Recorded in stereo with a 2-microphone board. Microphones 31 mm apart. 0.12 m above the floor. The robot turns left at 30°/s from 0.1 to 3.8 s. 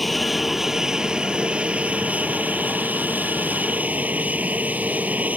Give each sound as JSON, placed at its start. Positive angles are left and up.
{"t": 0.0, "sound": "an aircraft", "azimuth_deg": 5}